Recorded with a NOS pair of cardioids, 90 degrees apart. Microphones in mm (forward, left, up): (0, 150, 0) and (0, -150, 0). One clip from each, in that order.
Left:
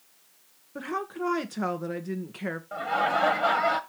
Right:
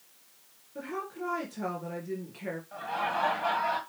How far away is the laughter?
About 1.6 m.